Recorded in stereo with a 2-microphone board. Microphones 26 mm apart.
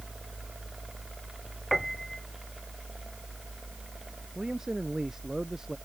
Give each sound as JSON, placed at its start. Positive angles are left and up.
{"t": 1.7, "sound": "a piano", "side_deg": 5}
{"t": 4.3, "sound": "a man speaking", "side_deg": -20}